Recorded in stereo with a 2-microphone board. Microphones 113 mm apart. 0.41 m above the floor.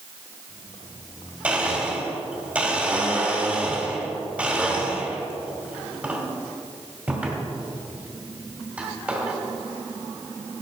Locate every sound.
1.4 s a blender: 10° right (ahead or behind), 1.9 m